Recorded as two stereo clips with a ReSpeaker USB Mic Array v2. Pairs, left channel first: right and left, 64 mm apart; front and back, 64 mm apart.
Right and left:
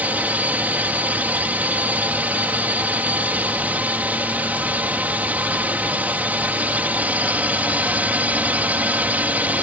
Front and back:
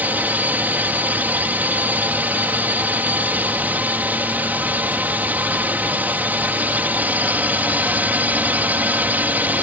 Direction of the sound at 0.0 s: 135° left.